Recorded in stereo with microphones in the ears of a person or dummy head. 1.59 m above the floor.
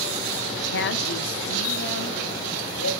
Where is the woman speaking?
50° left (ahead or behind), 0.7 m; by 2.9 s 65° left (ahead or behind), 3.5 m.